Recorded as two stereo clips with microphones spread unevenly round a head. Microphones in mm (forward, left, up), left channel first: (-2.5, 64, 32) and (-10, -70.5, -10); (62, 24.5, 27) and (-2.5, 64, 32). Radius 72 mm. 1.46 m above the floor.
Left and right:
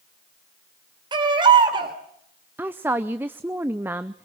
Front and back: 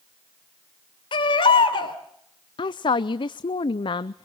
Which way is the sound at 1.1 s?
30° right.